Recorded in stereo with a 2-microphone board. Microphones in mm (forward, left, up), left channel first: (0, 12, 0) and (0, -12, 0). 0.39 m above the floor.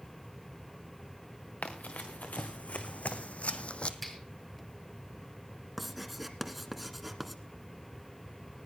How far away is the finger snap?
About 5.5 m.